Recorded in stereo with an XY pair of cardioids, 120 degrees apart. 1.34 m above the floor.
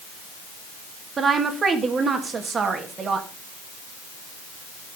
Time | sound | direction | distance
1.2 | a woman speaking | 35° right | 2 m